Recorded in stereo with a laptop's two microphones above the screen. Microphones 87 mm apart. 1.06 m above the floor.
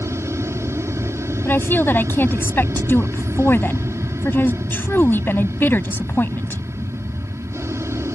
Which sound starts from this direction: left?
A woman speaking, at 1.4 s.